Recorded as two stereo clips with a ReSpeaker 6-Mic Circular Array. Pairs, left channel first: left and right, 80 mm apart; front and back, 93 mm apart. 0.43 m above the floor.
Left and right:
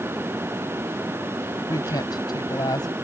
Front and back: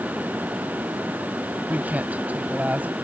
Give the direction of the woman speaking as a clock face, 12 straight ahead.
8 o'clock.